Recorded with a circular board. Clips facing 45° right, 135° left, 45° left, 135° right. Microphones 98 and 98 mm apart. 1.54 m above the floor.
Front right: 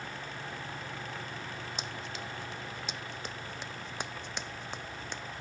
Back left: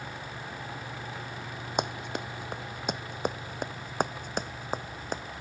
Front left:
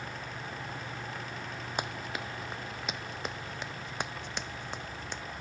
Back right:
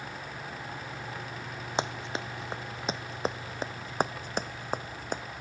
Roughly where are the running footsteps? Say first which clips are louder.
Back left 8 dB, back right 5 dB; behind.